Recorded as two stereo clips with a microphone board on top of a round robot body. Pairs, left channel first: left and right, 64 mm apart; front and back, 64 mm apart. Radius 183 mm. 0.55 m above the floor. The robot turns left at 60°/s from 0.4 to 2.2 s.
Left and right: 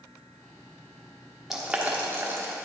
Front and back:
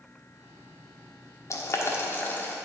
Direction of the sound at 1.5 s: 5° right.